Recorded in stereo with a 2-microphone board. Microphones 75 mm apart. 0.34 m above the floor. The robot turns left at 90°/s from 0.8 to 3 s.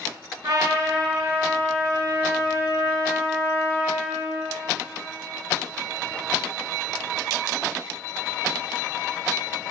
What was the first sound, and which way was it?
A trumpet, 85° right.